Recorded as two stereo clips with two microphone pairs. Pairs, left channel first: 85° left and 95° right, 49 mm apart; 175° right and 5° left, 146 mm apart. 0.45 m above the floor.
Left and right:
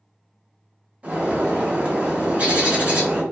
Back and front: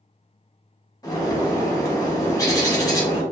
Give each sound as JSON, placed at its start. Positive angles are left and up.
{"t": 1.0, "sound": "a bird", "azimuth_deg": -135, "distance_m": 0.9}